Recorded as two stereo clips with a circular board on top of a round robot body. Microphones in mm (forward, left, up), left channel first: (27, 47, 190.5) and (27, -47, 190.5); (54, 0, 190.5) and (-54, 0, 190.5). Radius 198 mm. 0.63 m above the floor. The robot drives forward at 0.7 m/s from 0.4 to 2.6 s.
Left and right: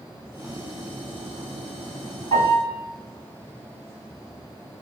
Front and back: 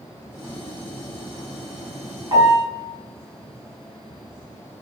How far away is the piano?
About 4 m.